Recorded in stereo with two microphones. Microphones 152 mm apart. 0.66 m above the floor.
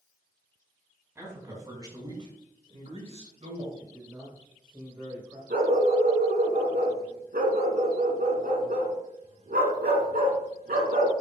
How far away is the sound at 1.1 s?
About 4.5 m.